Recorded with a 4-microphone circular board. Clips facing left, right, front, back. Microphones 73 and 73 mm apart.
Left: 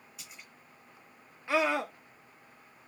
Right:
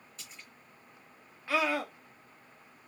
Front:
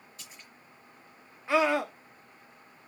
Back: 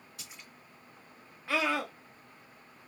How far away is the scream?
About 0.6 m.